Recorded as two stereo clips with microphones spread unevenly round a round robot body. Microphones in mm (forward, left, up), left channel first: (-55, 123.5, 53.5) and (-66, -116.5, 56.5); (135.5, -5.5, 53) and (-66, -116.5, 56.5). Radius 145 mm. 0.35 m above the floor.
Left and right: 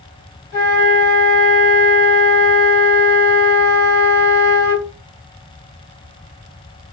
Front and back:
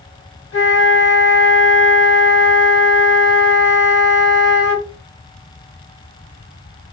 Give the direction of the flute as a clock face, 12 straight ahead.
11 o'clock.